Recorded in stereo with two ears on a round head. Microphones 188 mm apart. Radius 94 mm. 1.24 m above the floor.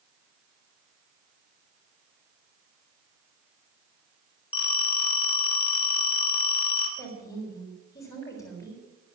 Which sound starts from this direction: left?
A phone ringing, at 4.5 s.